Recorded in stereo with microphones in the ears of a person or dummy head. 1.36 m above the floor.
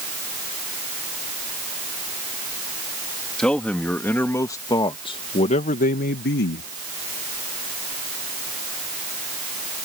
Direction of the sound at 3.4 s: 5° left (ahead or behind).